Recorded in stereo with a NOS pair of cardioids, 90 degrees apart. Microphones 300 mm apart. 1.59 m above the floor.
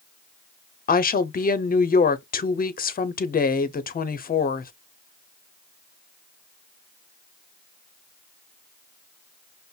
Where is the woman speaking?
30° left, 0.7 m.